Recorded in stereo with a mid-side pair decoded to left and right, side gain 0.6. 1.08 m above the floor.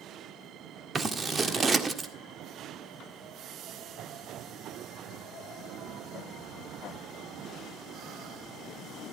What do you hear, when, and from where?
0.9 s scissors: 25° right, 1.6 m